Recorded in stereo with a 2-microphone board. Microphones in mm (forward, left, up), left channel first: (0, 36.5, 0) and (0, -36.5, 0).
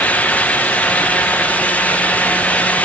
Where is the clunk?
I don't hear a clunk.